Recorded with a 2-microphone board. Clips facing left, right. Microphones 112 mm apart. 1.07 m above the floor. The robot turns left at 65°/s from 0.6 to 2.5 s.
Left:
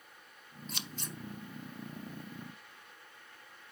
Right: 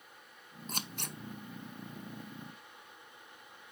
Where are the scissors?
45° right (ahead or behind), 0.5 m; by 1.2 s 75° right (ahead or behind), 0.5 m.